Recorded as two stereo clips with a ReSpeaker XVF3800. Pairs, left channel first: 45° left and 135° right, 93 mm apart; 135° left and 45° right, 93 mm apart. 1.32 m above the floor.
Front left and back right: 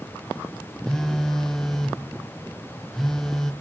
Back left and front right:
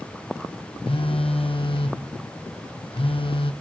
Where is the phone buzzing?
130° left, 0.6 m.